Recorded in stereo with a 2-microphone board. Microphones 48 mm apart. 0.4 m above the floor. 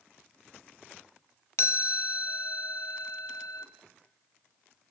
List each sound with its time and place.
1.6 s a chime: 60° left (ahead or behind), 0.9 m